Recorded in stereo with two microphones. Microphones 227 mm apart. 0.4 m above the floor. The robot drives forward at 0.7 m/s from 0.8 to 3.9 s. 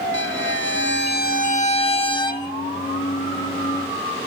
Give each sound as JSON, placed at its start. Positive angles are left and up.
{"t": 0.1, "sound": "a violin", "side_deg": 60, "distance_m": 0.5}